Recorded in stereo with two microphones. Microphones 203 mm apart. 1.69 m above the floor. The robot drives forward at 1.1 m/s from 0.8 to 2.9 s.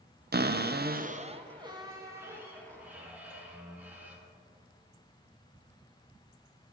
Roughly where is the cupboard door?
Right.